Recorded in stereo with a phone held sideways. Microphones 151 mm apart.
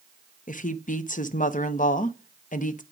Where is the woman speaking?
60° left (ahead or behind), 0.7 m.